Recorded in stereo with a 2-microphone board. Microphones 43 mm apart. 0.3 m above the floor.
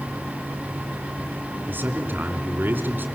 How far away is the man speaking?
About 3 m.